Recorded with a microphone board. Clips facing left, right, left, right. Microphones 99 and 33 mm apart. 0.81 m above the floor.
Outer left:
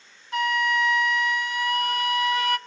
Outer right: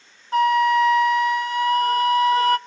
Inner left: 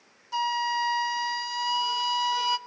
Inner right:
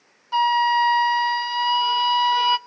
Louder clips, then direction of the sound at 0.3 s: Outer right 8 dB, inner right 9 dB; 35° right (ahead or behind).